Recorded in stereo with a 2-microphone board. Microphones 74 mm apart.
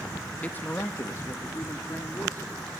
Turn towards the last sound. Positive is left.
turn(degrees=35)  # may be behind; listen again after turning